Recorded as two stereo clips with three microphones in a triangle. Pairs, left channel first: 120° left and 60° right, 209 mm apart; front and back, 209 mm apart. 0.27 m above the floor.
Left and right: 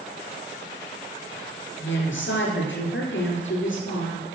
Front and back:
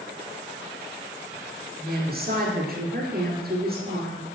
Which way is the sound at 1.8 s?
140° left.